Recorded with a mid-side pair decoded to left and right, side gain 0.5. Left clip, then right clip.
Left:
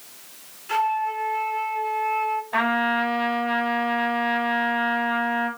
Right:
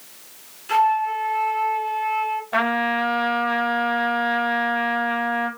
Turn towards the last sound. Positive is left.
turn(degrees=-45)